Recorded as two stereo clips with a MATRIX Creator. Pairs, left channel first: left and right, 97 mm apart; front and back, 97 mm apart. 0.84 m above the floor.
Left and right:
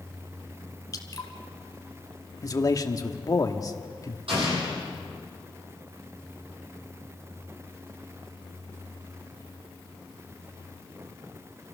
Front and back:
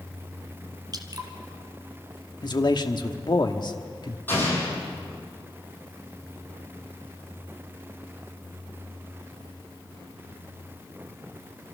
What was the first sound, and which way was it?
Dripping, 140° left.